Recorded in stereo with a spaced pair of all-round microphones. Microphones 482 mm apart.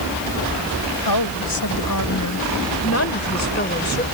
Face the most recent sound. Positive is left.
turn(degrees=20)  # may be behind; listen again after turning